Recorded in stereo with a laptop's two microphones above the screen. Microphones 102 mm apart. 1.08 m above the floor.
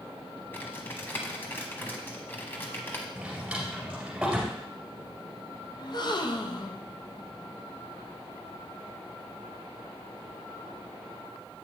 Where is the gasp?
45° left (ahead or behind), 0.6 m.